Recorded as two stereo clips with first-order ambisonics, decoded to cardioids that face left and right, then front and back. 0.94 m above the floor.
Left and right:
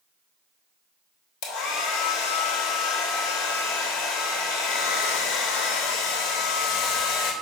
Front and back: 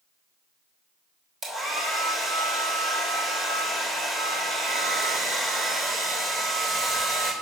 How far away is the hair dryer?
About 2.5 m.